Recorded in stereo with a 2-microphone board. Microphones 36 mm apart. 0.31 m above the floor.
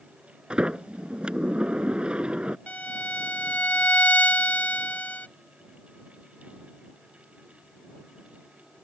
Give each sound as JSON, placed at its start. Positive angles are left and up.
{"t": 0.5, "sound": "a sliding door", "side_deg": -25}
{"t": 2.7, "sound": "a violin", "side_deg": 45}